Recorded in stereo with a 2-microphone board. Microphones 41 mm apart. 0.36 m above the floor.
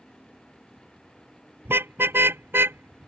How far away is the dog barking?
I don't hear a dog barking.